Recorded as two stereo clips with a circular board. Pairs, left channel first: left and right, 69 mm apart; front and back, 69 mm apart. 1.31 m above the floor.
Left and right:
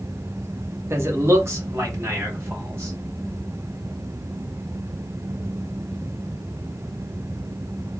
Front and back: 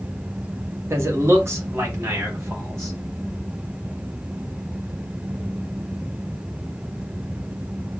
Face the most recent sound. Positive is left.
turn(degrees=-130)